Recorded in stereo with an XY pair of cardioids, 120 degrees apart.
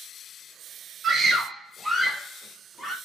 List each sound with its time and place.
1.0 s a scream: 40° right, 1.0 m; by 3.0 s 15° left, 1.8 m